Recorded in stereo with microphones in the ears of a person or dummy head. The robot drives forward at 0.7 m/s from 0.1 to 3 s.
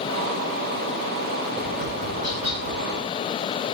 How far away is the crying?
No crying in this recording.